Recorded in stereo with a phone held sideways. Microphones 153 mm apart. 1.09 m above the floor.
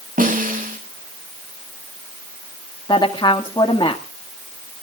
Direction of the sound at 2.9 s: 30° left (ahead or behind).